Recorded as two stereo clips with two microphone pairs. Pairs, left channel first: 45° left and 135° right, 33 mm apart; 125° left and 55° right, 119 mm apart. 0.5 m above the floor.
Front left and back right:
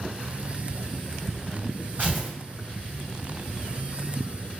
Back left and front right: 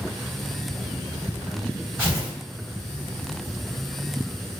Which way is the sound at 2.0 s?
120° right.